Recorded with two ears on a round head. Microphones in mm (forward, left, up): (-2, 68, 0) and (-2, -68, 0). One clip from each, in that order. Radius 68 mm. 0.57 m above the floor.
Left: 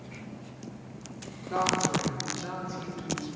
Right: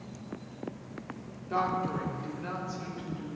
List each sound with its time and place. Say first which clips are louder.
1.5 s a woman speaking: left 3 dB; 5° right (ahead or behind), 1.4 m; by 3.3 s 10° left (ahead or behind), 3 m